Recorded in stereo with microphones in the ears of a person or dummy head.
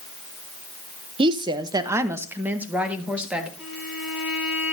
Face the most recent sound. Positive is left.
turn(degrees=-5)  # may be behind; listen again after turning